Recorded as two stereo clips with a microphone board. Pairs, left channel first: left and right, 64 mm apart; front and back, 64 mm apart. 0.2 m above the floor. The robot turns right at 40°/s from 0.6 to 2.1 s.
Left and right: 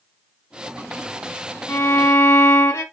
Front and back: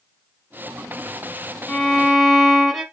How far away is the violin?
About 1.5 m.